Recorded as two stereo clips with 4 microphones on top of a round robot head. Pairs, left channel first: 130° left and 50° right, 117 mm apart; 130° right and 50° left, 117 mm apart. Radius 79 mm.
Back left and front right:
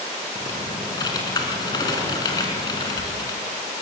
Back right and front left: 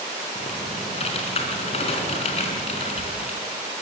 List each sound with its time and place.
0.3 s typing on a keyboard: 170° right, 3.5 m